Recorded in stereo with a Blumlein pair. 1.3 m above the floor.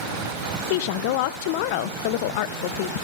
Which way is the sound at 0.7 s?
50° left.